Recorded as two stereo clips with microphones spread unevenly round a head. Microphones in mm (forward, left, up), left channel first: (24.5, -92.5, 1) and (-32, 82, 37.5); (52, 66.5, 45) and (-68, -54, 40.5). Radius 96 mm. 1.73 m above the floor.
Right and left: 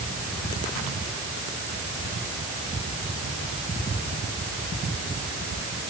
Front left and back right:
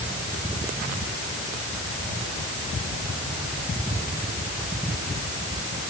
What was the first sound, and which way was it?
Only background noise.